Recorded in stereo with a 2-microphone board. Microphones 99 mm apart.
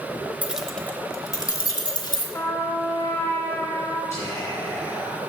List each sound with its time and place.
0.4 s keys jangling: 15° right (ahead or behind), 0.9 m; by 2.2 s 55° left (ahead or behind), 2 m
2.3 s a trumpet: 25° left (ahead or behind), 1.6 m
4.1 s whispering: 30° left (ahead or behind), 3 m